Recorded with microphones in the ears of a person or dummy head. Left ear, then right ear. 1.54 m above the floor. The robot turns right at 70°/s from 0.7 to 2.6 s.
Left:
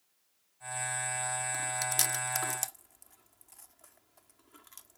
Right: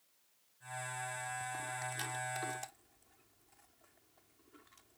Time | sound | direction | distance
1.5 | chewing | 65° left (ahead or behind) | ?